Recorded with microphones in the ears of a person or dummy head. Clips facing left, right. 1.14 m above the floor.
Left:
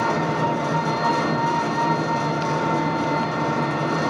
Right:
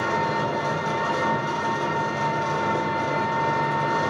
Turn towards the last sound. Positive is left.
turn(degrees=60)  # may be behind; listen again after turning